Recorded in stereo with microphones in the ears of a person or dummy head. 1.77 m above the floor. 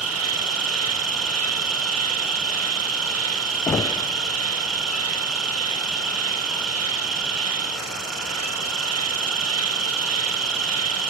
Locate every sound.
0.0 s an insect: 80° right, 1.3 m
3.7 s knocking: 15° left (ahead or behind), 0.6 m